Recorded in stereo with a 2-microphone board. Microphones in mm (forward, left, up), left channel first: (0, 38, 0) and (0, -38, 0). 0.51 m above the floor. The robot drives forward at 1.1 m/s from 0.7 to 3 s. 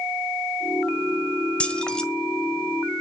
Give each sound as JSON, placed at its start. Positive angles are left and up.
{"t": 1.6, "sound": "keys jangling", "side_deg": 15, "distance_m": 1.2}